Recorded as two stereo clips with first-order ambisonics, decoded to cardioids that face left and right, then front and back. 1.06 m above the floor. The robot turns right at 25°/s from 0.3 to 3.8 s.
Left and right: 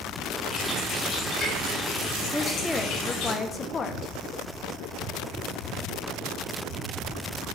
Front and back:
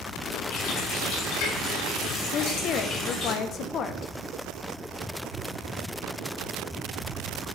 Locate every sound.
0.5 s a running tap: 5° right, 3.5 m; by 3.3 s 65° left, 3.5 m
2.3 s a woman speaking: straight ahead, 0.5 m; by 4.1 s 35° left, 0.5 m